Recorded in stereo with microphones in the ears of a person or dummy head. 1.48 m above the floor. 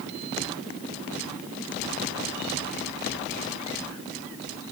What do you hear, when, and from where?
Only background noise.